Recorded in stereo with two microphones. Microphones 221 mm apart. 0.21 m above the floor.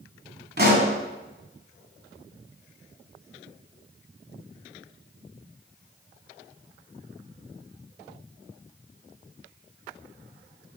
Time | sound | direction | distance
0.6 | a pop | 45° right (ahead or behind) | 1.5 m